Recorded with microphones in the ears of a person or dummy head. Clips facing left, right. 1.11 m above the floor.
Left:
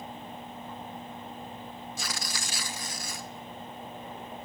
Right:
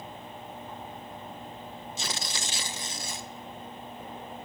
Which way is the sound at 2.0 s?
30° right (ahead or behind).